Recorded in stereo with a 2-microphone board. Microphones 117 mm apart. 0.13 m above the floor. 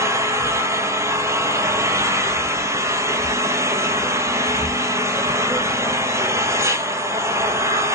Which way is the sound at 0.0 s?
25° right (ahead or behind).